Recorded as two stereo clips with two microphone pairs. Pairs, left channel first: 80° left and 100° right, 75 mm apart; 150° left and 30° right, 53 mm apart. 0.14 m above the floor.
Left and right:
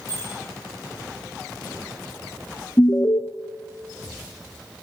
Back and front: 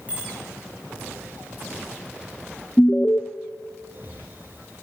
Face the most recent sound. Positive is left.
turn(degrees=125)